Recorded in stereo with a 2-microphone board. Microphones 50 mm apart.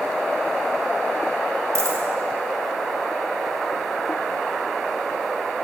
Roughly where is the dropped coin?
Right.